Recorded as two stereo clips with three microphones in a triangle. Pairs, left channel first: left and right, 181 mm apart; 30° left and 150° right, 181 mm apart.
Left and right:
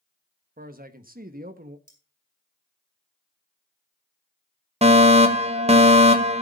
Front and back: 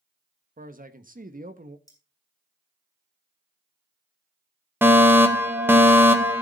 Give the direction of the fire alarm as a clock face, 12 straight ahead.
3 o'clock.